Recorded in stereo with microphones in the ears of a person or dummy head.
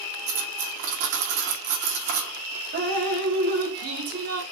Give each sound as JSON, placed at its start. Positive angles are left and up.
{"t": 0.3, "sound": "cutlery clinking", "side_deg": -45, "distance_m": 1.5}
{"t": 2.7, "sound": "dripping", "side_deg": -60, "distance_m": 1.3}